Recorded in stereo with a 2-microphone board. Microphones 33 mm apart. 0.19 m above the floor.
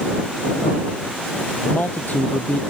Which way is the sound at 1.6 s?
55° left (ahead or behind).